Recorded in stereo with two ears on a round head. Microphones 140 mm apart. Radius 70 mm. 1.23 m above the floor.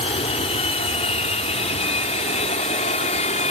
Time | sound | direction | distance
0.0 | an aircraft | 40° left (ahead or behind) | ?